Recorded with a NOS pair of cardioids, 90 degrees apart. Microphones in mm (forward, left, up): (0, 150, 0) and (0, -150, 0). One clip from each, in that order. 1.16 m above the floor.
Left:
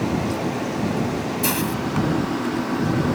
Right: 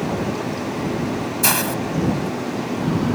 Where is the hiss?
45° right.